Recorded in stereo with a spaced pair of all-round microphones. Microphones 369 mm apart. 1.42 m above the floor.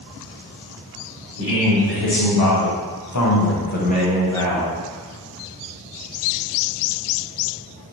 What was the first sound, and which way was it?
A man speaking, 70° left (ahead or behind).